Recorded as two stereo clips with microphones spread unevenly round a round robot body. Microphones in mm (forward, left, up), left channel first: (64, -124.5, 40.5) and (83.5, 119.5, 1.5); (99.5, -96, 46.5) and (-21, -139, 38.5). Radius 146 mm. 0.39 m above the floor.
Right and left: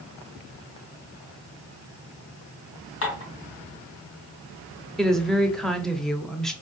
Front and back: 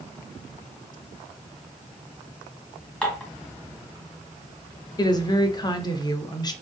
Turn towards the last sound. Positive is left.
turn(degrees=10)